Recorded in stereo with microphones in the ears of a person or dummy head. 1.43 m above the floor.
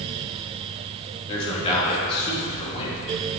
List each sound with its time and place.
1.3 s a man speaking: 35° left (ahead or behind), 2.5 m